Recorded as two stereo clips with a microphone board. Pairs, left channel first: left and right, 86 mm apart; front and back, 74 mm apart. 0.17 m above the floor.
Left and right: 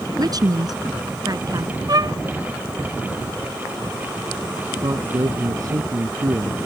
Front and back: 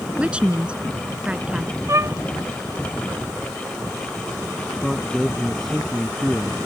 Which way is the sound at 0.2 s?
110° right.